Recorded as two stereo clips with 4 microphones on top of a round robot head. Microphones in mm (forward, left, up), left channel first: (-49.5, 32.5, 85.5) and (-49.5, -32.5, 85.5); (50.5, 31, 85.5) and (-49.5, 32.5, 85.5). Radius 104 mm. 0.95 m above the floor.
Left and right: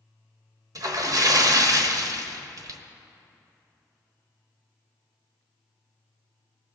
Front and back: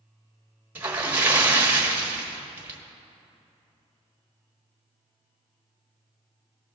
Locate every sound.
0.8 s a splash: 110° right, 1.1 m